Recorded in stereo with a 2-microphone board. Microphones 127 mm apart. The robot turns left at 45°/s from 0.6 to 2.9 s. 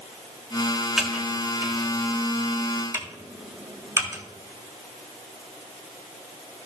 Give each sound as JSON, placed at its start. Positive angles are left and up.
{"t": 1.0, "sound": "typing on a keyboard", "side_deg": -5, "distance_m": 1.4}